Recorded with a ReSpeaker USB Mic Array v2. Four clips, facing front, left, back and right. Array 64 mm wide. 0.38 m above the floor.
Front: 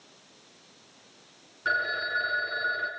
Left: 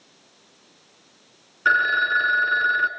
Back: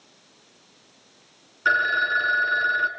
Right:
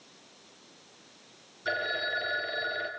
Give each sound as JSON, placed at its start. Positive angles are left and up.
{"t": 1.6, "sound": "a phone ringing", "azimuth_deg": 120, "distance_m": 2.5}